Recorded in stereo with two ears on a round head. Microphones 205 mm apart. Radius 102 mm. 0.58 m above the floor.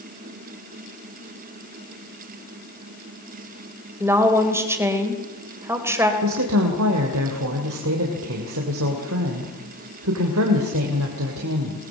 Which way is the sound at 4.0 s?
10° right (ahead or behind).